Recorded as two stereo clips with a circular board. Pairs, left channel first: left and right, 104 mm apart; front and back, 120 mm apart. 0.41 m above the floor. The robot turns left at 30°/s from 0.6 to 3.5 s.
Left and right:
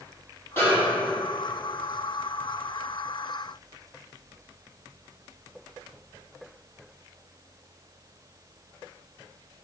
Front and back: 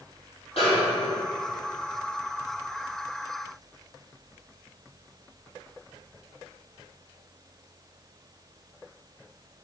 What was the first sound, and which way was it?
A snare drum, 25° left.